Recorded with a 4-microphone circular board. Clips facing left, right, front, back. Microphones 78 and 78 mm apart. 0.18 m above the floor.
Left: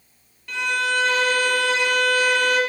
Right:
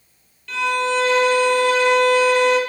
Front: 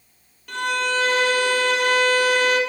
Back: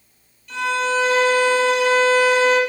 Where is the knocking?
I don't hear knocking.